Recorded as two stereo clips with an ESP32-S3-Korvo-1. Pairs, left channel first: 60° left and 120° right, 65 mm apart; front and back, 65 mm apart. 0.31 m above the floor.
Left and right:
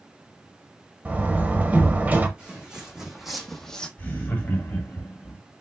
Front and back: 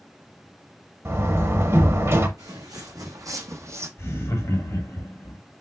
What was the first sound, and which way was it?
A door slam, 170° right.